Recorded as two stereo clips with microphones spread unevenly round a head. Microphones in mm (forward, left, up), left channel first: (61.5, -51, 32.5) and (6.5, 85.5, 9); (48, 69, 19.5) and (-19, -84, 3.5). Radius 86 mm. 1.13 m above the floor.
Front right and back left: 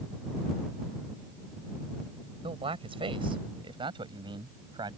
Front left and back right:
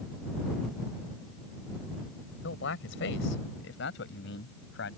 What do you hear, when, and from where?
2.4 s a man speaking: 55° left; by 5.0 s 50° left